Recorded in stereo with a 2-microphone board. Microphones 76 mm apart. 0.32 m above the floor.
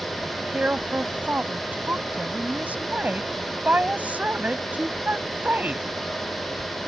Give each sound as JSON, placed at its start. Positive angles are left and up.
{"t": 0.2, "sound": "a woman speaking", "side_deg": -20}